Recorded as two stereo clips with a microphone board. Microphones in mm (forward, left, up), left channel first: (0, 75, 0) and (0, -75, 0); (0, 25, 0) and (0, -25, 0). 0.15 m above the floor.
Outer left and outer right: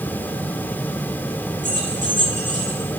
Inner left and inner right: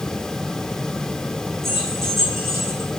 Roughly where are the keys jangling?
Right.